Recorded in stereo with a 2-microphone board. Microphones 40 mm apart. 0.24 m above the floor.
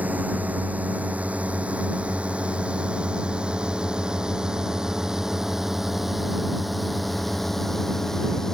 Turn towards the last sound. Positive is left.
turn(degrees=15)  # may be behind; listen again after turning